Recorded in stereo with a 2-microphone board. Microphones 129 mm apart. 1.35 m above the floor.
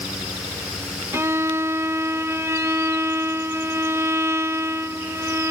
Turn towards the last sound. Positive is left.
turn(degrees=-20)  # may be behind; listen again after turning